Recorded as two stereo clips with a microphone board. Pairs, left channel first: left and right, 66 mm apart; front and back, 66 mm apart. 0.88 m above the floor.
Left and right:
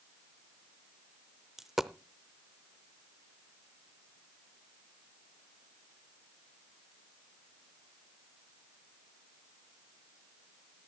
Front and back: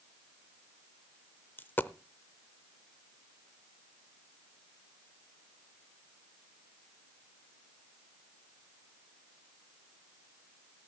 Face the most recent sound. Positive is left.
turn(degrees=-10)